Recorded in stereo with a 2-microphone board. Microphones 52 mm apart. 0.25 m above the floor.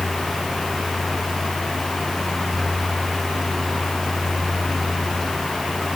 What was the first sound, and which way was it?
Only background noise.